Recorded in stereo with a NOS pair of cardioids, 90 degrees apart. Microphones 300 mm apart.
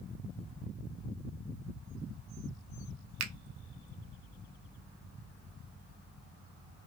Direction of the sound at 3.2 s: 60° right.